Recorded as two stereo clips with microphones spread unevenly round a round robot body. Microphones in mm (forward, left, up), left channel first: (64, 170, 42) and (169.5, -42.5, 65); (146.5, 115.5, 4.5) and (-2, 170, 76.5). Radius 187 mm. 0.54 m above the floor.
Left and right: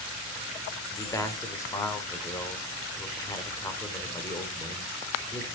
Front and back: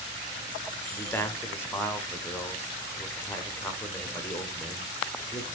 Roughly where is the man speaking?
Ahead left.